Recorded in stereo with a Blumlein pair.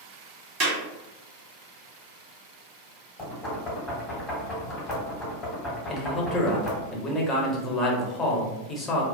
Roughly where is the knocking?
Ahead.